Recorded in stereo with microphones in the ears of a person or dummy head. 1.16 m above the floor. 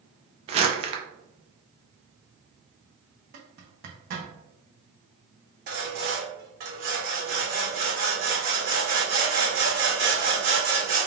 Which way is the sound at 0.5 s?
30° right (ahead or behind).